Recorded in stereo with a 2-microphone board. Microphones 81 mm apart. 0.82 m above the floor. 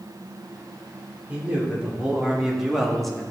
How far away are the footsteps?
I don't hear footsteps.